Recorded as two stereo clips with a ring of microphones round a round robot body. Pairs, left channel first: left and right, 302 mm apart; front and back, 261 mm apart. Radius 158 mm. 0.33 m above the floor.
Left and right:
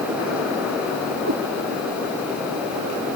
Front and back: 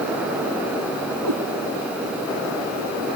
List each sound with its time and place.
1.2 s a cat meowing: 145° right